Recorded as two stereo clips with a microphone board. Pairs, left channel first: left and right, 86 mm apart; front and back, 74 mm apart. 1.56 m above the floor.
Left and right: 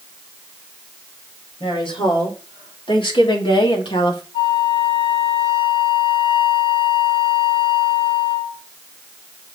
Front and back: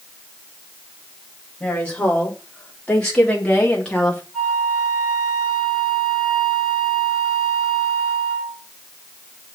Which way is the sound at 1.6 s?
80° left.